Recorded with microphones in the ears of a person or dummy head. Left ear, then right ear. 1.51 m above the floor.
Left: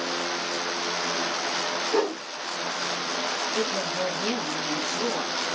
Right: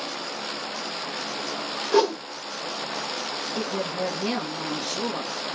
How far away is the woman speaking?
About 2.5 m.